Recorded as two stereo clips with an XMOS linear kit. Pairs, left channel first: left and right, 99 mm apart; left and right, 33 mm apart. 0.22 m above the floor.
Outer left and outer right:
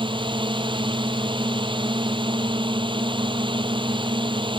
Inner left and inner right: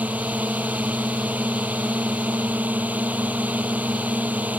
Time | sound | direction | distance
0.0 | a drone | 55° right (ahead or behind) | ?